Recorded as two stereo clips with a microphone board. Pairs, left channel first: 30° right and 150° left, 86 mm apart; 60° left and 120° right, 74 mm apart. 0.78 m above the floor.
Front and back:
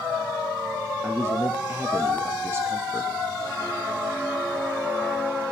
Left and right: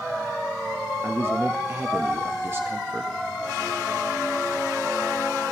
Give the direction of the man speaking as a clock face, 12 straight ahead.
5 o'clock.